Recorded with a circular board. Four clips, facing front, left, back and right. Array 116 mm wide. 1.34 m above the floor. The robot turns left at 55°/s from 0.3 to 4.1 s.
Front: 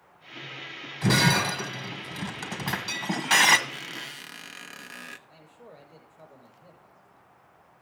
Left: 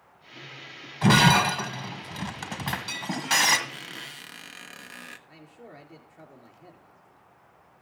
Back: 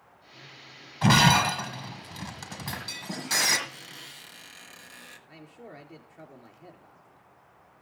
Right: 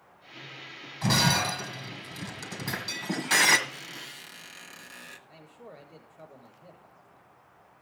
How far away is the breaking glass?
About 1.6 m.